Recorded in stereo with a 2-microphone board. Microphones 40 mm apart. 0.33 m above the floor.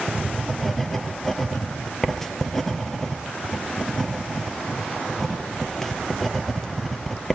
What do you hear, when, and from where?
0.1 s writing: 10° left (ahead or behind), 1.9 m